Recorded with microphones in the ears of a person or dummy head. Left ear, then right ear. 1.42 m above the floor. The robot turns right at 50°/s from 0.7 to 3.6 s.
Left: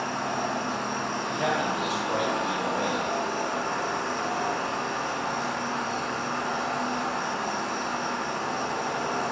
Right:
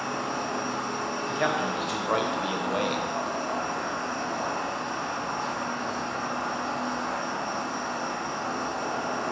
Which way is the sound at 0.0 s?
15° right.